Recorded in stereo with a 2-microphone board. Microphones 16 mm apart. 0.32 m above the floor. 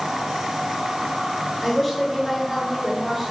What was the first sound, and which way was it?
A woman speaking, 10° right (ahead or behind).